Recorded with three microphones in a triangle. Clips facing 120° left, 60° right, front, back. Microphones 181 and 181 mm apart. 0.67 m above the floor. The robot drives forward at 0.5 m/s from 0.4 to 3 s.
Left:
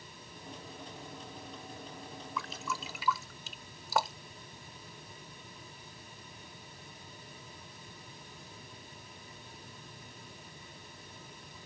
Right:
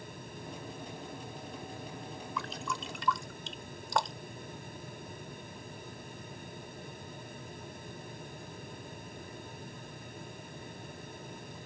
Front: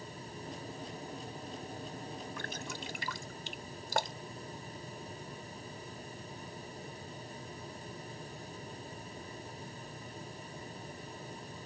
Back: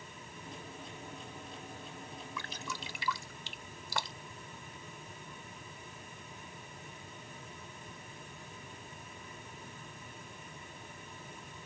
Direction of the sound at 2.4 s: 30° left.